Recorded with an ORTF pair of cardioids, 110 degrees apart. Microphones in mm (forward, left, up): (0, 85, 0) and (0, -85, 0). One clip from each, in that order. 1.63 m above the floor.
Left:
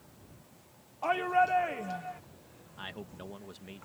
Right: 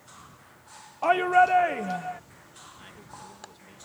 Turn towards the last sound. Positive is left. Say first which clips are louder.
# left 6 dB
turn(degrees=50)